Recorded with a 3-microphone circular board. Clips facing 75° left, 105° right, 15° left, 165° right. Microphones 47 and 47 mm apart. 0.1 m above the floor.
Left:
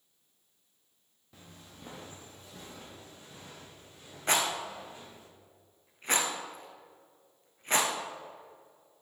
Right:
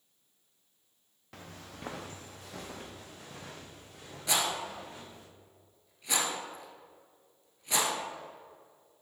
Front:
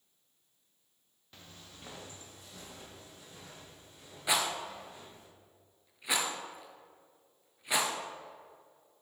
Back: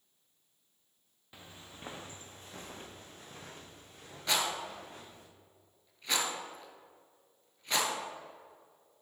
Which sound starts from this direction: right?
Footsteps, at 1.3 s.